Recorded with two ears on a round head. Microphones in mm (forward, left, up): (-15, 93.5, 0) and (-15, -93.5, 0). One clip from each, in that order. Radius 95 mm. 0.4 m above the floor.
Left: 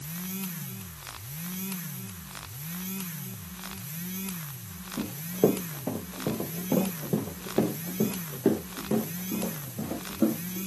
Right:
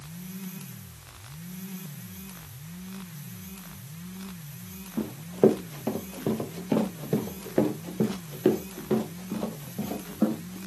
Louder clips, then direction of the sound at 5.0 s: Right 3 dB; 80° right.